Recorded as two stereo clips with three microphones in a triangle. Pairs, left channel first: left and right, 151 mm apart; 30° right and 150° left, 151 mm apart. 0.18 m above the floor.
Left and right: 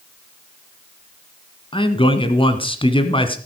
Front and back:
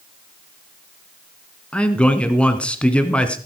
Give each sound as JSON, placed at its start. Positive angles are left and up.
{"t": 1.7, "sound": "a man speaking", "azimuth_deg": 50, "distance_m": 1.5}